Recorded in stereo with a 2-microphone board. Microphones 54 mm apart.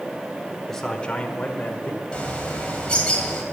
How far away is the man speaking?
About 1.0 m.